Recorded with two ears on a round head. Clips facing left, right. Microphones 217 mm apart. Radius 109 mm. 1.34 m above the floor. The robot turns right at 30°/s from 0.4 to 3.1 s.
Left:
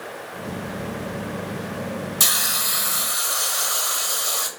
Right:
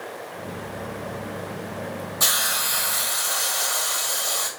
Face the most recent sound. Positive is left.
turn(degrees=15)  # may be behind; listen again after turning